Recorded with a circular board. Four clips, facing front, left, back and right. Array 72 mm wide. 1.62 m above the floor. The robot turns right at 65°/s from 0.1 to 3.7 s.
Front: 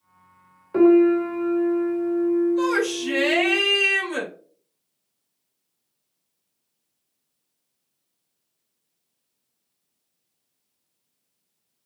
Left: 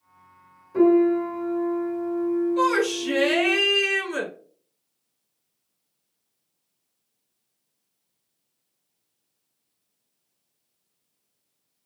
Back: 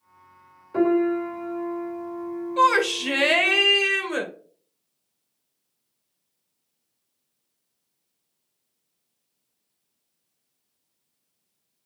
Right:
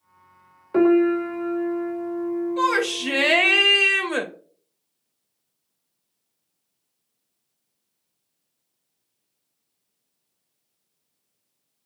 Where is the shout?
175° right, 1.5 m; by 4.3 s 100° right, 1.5 m.